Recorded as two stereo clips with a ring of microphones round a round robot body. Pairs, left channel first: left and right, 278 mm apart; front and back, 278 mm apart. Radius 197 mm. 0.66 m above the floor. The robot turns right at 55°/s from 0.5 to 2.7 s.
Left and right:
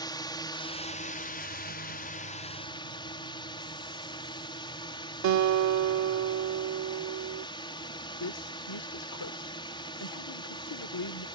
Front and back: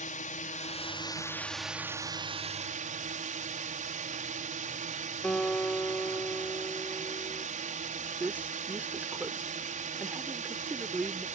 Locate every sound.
0.0 s a drone: 30° left; by 11.4 s 150° left
5.2 s a guitar: 85° right
8.2 s a woman speaking: 95° left